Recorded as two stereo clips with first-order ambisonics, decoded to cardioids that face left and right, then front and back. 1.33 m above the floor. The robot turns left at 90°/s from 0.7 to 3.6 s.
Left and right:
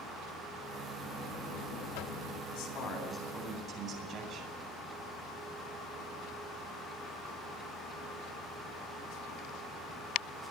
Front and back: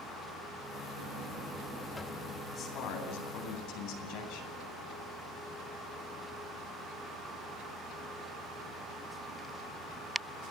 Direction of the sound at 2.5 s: 70° left.